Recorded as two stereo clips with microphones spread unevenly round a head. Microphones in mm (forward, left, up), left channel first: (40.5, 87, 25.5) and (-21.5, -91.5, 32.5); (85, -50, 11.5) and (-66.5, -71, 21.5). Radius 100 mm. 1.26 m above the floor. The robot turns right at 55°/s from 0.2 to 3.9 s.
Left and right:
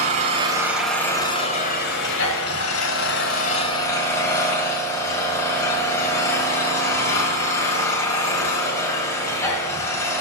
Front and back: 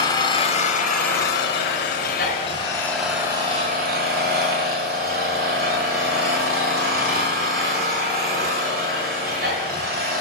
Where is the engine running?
55° right, 2 m; by 10.2 s 150° left, 2 m.